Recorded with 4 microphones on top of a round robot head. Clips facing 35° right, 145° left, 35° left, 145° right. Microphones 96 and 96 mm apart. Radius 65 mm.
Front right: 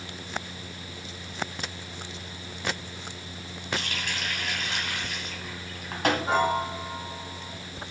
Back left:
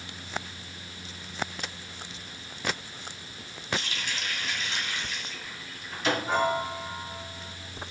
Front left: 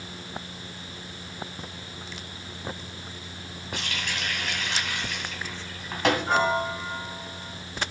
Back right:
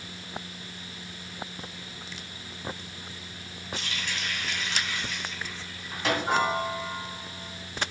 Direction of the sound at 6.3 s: 65° right.